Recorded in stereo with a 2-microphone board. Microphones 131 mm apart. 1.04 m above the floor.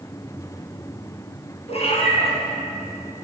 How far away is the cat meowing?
About 3.5 m.